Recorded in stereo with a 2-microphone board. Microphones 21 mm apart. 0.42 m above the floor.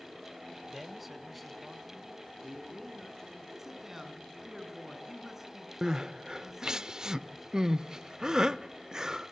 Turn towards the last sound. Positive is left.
turn(degrees=-30)  # may be behind; listen again after turning